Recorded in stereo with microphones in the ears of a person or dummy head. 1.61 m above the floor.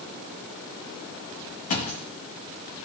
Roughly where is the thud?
Left.